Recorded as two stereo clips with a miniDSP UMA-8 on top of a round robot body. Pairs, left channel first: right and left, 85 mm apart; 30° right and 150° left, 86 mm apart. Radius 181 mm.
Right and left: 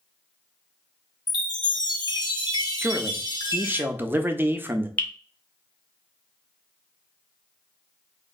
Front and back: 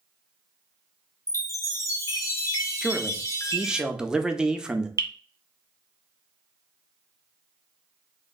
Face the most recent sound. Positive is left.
turn(degrees=-160)